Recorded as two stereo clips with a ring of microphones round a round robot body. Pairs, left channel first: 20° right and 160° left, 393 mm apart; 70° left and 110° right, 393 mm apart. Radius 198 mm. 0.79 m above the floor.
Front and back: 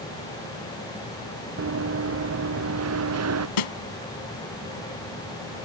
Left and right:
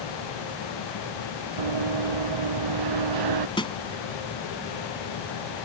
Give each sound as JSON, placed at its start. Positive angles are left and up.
{"t": 1.6, "sound": "running footsteps", "azimuth_deg": -145}
{"t": 3.6, "sound": "a snare drum", "azimuth_deg": -10}